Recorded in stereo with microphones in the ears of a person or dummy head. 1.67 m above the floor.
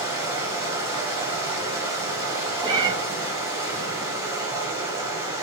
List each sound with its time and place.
0.0 s running water: 30° right (ahead or behind), 6 m
2.6 s a cat meowing: 25° right (ahead or behind), 1.6 m